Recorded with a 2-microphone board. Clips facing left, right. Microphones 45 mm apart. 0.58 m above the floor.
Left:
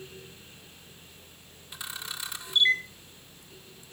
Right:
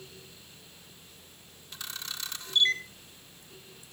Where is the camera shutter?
15° left (ahead or behind), 1.3 m.